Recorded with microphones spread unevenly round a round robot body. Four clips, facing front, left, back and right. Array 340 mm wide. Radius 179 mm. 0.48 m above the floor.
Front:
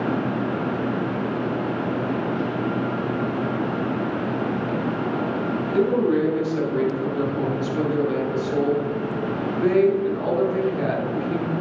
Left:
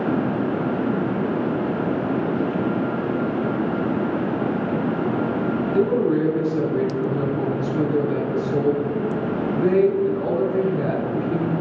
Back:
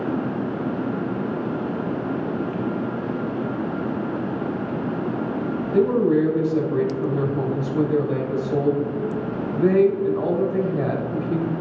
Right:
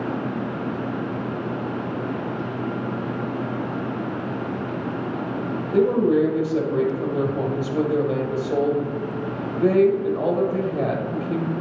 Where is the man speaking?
100° right, 2.5 m.